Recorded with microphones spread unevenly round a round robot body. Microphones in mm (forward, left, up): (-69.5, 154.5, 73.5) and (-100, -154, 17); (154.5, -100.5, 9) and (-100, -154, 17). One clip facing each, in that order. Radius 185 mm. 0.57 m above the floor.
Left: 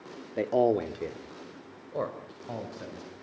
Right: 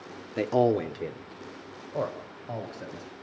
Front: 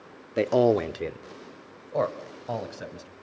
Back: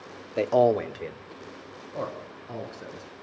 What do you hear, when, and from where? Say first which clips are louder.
0.4 s a man speaking: right 1 dB, front 1 dB; 50° right, 1.0 m; by 3.1 s 5° left, 4 m